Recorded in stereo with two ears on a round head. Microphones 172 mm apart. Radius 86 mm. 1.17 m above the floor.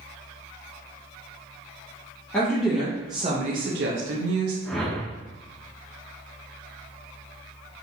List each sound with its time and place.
2.3 s a woman speaking: 10° left (ahead or behind), 1.0 m; by 4.5 s 85° right, 1.1 m
4.7 s a whoosh: 5° left (ahead or behind), 1.1 m